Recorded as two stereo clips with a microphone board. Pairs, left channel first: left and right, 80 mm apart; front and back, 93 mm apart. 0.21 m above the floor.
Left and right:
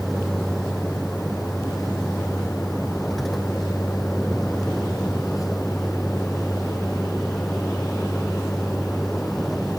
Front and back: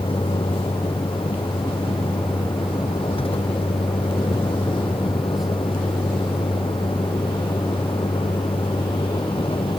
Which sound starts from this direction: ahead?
A vehicle, at 0.0 s.